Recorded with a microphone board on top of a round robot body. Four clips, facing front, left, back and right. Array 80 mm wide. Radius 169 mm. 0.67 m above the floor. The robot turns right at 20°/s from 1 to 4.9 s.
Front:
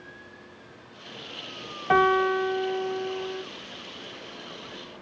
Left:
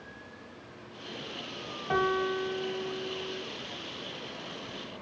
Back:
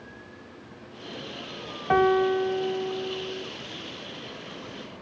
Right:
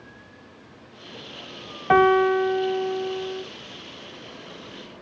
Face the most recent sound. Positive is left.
turn(degrees=-20)